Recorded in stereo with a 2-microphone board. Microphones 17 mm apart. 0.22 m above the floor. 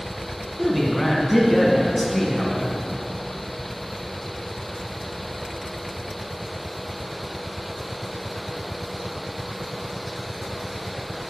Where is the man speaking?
15° left (ahead or behind), 1.6 m.